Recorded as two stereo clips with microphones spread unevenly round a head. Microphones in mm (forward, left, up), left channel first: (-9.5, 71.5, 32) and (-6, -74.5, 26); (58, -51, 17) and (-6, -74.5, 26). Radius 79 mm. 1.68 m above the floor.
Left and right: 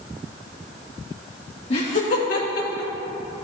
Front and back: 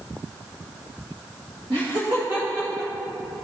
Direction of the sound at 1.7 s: 140° left.